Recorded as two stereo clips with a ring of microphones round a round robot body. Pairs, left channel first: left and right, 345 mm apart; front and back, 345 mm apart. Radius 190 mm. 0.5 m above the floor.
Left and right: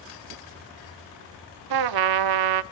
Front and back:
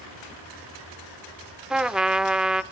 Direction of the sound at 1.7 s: 90° right.